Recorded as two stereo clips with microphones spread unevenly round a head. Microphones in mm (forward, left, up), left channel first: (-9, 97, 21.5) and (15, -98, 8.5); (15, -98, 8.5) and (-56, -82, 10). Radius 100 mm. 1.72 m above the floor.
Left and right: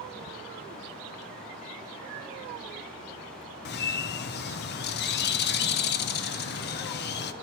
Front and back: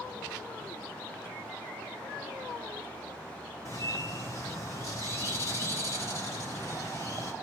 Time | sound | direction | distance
3.6 | a bird | 60° left | 0.6 m